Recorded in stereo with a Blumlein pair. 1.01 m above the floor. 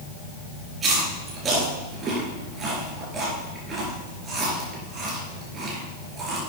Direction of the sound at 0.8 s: 25° right.